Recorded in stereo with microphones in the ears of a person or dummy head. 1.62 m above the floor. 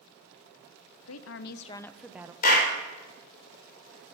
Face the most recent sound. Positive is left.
turn(degrees=50)  # may be behind; listen again after turning